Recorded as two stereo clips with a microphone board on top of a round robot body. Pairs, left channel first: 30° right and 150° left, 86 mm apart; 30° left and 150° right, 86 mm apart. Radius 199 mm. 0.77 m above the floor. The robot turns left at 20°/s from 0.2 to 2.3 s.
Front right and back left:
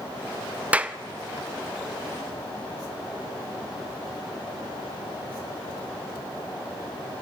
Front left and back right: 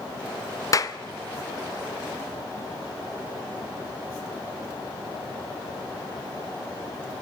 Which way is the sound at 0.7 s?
75° left.